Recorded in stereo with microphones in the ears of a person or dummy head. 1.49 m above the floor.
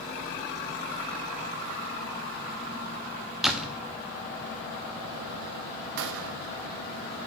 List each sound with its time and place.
3.4 s a door slam: centre (ahead or behind), 0.5 m
6.0 s a gunshot: 65° right (ahead or behind), 0.5 m